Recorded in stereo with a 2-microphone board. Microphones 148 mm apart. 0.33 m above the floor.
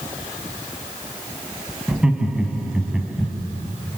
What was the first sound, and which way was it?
Laughter, 5° right (ahead or behind).